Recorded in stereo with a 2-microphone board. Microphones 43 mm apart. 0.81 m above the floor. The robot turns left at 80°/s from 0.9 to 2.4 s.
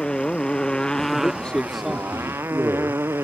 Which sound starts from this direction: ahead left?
A man speaking, at 1.1 s.